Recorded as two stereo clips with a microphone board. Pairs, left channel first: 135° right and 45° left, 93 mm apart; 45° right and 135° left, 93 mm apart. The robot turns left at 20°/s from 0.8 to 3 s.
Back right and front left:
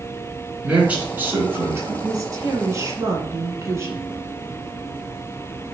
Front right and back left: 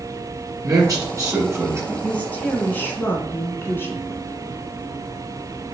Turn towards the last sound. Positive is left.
turn(degrees=5)